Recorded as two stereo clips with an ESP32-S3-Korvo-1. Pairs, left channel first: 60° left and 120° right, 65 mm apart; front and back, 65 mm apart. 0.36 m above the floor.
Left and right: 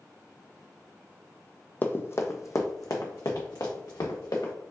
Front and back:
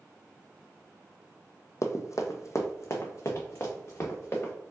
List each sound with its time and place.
1.8 s running footsteps: 10° left, 0.5 m; by 4.5 s 50° left, 1.7 m